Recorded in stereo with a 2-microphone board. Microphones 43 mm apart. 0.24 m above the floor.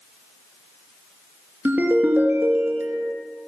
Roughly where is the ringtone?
Right.